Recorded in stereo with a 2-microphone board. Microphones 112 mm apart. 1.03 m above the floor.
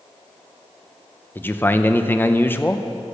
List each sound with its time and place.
1.4 s a man speaking: 20° left (ahead or behind), 0.7 m